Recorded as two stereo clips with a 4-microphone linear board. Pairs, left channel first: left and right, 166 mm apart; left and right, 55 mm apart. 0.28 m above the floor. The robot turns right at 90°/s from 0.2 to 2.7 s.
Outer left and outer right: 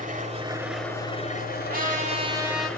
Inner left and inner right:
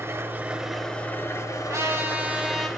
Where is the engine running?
50° right, 0.9 m; by 2.8 s 175° left, 0.9 m.